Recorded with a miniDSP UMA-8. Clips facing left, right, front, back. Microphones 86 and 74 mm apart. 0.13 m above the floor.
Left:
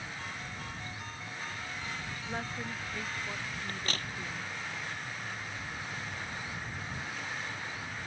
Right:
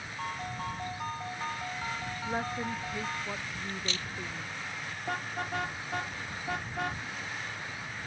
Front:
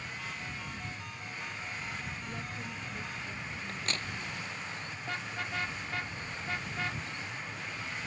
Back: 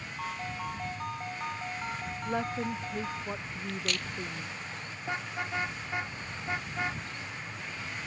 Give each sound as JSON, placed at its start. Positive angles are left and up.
{"t": 0.2, "sound": "a ringtone", "azimuth_deg": -135}
{"t": 2.2, "sound": "a woman speaking", "azimuth_deg": -160}
{"t": 3.7, "sound": "a crack", "azimuth_deg": 55}
{"t": 5.1, "sound": "a car horn", "azimuth_deg": -110}